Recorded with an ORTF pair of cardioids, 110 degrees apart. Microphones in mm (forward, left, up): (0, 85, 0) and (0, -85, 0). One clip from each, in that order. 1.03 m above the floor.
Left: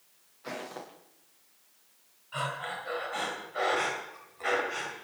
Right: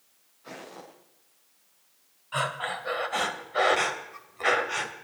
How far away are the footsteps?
About 7.5 m.